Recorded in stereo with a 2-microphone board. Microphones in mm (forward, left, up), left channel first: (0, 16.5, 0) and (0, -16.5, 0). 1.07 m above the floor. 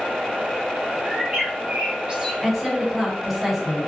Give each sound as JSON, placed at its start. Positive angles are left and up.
{"t": 1.1, "sound": "a bird", "side_deg": -30, "distance_m": 1.4}
{"t": 2.4, "sound": "a woman speaking", "side_deg": 0, "distance_m": 1.1}